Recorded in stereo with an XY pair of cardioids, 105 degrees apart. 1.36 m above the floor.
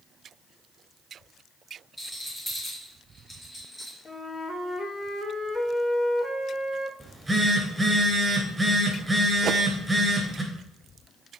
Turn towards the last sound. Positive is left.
turn(degrees=-55)